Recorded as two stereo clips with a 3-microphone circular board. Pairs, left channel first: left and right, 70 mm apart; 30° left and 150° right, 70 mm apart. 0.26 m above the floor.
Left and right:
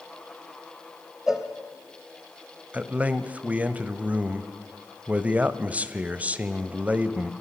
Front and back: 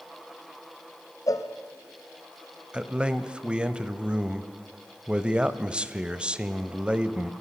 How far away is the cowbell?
About 2.5 m.